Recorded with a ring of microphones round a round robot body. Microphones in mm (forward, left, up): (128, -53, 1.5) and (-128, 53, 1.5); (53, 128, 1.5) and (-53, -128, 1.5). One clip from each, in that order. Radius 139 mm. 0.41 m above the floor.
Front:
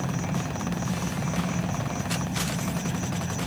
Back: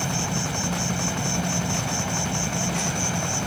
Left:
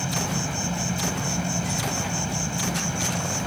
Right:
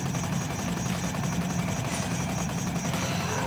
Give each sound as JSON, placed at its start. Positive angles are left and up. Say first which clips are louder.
{"t": 0.0, "sound": "an insect", "louder": "back 5 dB, left 5 dB", "azimuth_deg": 120}